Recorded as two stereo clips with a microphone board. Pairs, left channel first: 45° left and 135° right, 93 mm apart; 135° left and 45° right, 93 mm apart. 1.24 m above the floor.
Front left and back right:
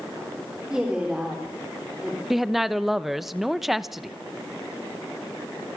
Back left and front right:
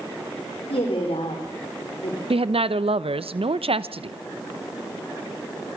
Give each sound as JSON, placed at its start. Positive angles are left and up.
{"t": 0.7, "sound": "a woman speaking", "azimuth_deg": 145, "distance_m": 3.5}
{"t": 2.3, "sound": "a woman speaking", "azimuth_deg": -50, "distance_m": 0.8}